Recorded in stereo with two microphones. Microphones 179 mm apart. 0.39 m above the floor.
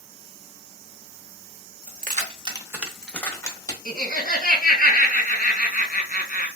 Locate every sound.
1.9 s keys jangling: 55° right (ahead or behind), 0.9 m; by 3.8 s 25° left (ahead or behind), 1.4 m
3.9 s laughter: 55° left (ahead or behind), 1.9 m